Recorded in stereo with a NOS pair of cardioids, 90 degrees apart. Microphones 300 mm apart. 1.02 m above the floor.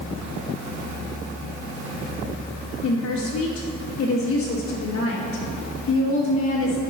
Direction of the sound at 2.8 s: 50° left.